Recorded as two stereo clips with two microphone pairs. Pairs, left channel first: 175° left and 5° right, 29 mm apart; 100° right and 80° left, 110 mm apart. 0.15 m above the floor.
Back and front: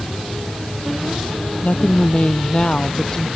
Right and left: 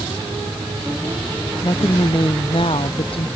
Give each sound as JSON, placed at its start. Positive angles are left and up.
{"t": 1.6, "sound": "a woman speaking", "azimuth_deg": -145}